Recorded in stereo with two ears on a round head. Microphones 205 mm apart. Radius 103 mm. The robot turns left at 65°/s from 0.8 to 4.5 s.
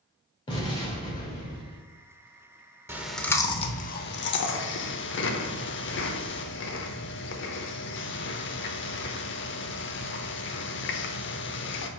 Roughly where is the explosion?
Behind left.